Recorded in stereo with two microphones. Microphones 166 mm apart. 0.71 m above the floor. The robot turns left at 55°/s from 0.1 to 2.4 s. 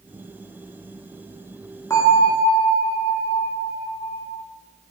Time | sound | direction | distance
1.9 | a bell | 15° left (ahead or behind) | 1.3 m